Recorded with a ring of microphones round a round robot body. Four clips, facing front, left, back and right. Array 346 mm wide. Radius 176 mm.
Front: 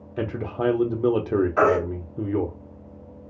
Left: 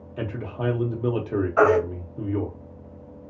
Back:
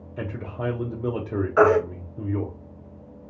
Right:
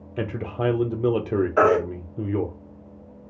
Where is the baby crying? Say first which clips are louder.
Even, back 4 dB; 115° right, 1.2 m.